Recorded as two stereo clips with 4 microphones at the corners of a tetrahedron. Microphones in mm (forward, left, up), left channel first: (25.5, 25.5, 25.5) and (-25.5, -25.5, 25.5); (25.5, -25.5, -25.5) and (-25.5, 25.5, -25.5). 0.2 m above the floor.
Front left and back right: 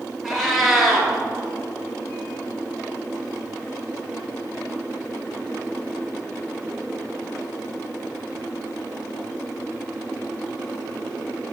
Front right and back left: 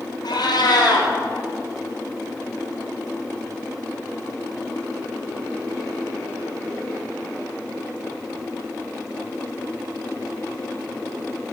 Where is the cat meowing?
45° right, 1.6 m.